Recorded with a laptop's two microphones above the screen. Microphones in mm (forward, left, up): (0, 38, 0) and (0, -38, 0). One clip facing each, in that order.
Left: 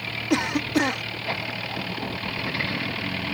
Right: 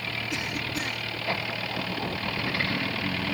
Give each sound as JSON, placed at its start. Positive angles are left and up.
{"t": 0.3, "sound": "a cough", "side_deg": 75}